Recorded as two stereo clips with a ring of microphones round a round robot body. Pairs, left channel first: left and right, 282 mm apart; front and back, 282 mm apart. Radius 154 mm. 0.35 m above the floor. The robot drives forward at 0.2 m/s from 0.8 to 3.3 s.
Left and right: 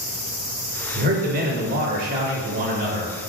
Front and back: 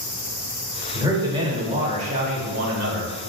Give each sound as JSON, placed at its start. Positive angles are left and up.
{"t": 0.9, "sound": "a man speaking", "azimuth_deg": -110, "distance_m": 0.9}